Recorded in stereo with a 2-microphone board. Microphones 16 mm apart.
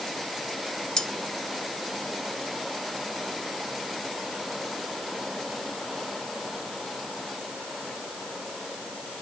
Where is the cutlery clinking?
65° left (ahead or behind), 0.9 m.